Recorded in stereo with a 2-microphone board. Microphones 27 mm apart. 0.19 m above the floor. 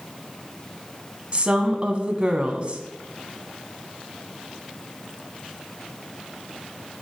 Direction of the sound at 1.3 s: 35° right (ahead or behind).